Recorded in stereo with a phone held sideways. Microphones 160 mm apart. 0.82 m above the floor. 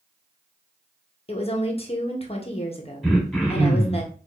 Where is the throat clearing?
Centre (ahead or behind), 1.7 m.